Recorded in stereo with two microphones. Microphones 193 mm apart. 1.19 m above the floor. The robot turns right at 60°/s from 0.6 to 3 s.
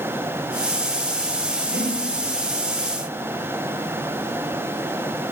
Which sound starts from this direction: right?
Breathing, at 1.7 s.